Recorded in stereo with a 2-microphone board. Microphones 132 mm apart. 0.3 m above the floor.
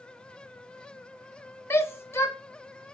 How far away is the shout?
About 1.3 m.